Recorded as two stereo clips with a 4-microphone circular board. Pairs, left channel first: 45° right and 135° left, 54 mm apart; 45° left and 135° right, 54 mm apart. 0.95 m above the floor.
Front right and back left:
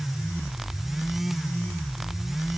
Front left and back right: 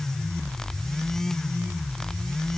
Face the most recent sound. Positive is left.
No sound to turn to.